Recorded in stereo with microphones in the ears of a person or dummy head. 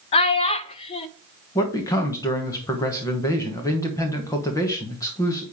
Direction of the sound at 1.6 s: 15° left (ahead or behind).